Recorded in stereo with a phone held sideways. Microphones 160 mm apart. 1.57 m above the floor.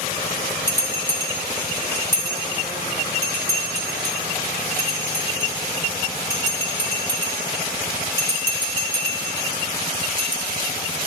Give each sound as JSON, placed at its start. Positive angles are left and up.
{"t": 0.7, "sound": "a bell", "side_deg": 15, "distance_m": 3.0}